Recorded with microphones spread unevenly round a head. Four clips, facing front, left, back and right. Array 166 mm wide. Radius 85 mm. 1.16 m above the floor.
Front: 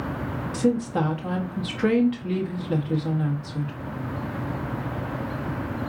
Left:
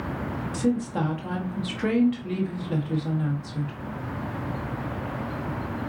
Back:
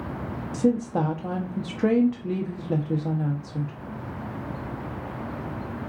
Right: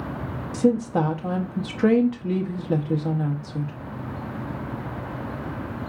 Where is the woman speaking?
130° right, 0.7 m.